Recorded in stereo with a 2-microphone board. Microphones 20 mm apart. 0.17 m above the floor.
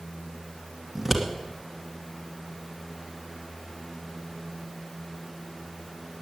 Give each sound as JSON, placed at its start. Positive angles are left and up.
{"t": 0.9, "sound": "scissors", "side_deg": -10, "distance_m": 2.0}